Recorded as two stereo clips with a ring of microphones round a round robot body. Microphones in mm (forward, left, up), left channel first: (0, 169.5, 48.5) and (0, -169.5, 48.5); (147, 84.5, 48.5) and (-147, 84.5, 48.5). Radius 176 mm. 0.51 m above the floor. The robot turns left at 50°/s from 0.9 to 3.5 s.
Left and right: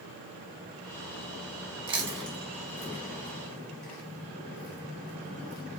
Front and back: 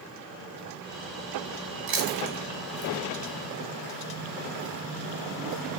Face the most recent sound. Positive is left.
turn(degrees=115)